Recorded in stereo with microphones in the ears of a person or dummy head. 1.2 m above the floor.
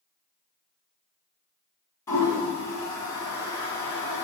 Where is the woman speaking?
I don't hear a woman speaking.